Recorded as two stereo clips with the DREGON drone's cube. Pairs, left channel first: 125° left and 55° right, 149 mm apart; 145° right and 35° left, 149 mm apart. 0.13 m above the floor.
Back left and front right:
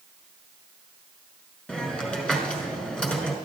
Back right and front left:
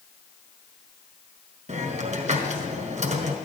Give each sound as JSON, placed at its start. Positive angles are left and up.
{"t": 1.7, "sound": "a hiss", "azimuth_deg": 40, "distance_m": 1.6}